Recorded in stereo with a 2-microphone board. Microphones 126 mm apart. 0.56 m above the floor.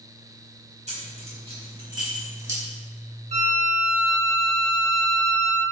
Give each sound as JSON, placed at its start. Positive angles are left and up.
{"t": 0.9, "sound": "keys jangling", "side_deg": -70, "distance_m": 3.0}
{"t": 3.3, "sound": "a violin", "side_deg": -60, "distance_m": 1.5}